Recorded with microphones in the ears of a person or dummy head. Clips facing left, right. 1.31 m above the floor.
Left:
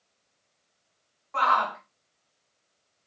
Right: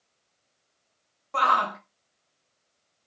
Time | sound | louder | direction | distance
1.3 | a shout | even | 45° right (ahead or behind) | 0.8 m